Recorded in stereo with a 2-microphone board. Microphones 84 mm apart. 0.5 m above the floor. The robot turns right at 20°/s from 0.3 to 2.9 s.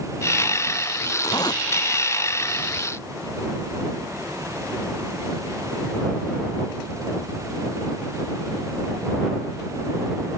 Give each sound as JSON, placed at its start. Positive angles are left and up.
{"t": 1.2, "sound": "a zipper", "side_deg": 50}